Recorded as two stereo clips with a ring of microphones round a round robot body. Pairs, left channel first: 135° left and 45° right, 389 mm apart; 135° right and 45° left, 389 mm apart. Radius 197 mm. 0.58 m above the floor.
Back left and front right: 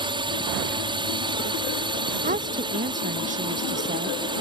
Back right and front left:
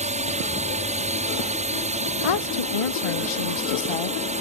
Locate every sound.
0.0 s a drone: 10° left
2.2 s a woman speaking: 115° right